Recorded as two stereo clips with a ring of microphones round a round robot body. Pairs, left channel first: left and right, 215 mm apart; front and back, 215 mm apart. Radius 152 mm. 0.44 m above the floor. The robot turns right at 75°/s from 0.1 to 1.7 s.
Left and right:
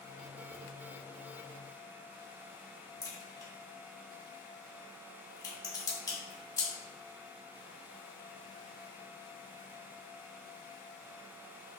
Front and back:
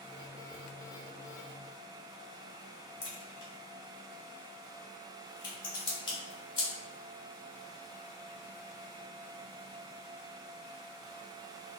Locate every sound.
3.0 s a crack: 20° left, 1.8 m